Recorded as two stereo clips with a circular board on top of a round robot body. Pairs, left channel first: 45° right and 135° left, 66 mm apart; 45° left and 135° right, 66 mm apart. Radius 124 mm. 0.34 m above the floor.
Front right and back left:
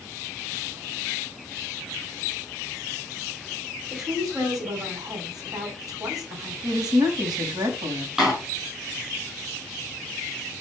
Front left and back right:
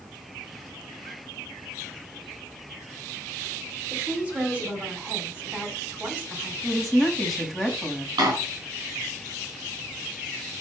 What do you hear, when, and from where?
3.9 s a woman speaking: 155° left, 4 m
6.6 s a woman speaking: 135° left, 3 m
8.2 s a door slam: 145° right, 5.5 m